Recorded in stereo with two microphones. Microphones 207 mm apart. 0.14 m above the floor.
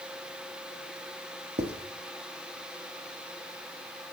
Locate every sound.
1.6 s writing: 55° right (ahead or behind), 1.2 m